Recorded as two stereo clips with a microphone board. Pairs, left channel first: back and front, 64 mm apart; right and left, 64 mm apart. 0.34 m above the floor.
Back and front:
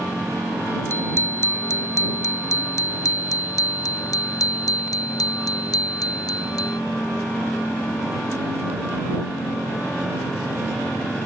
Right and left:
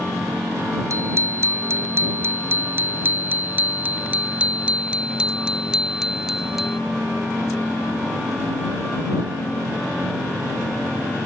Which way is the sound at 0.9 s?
130° left.